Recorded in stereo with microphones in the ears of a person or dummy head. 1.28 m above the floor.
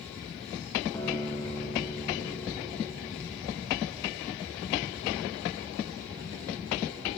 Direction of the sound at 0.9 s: 20° left (ahead or behind).